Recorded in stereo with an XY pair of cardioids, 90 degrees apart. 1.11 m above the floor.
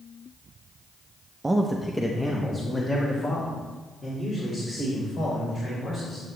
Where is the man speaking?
20° right, 0.7 m; by 6.2 s 50° left, 4.5 m.